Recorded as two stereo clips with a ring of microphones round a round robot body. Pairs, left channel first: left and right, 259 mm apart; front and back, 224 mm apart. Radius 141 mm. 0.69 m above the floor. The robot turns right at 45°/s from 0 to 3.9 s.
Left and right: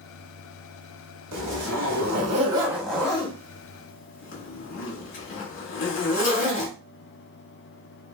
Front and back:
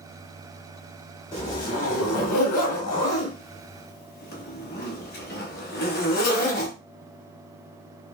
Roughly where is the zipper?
Right.